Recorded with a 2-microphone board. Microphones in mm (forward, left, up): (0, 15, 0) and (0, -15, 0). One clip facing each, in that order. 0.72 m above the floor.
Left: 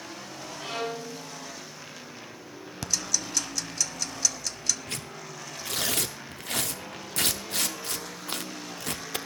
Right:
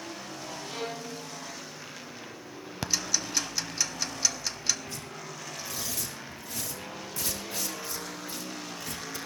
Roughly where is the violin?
Left.